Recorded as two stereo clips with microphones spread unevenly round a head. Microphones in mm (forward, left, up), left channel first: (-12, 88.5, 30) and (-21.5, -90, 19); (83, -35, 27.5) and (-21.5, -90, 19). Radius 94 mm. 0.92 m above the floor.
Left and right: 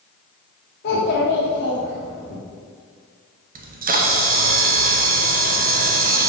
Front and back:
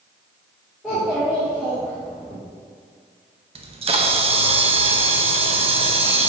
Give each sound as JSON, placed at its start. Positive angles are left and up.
{"t": 0.8, "sound": "a child speaking", "azimuth_deg": 120, "distance_m": 1.3}
{"t": 3.5, "sound": "a camera shutter", "azimuth_deg": -125, "distance_m": 0.9}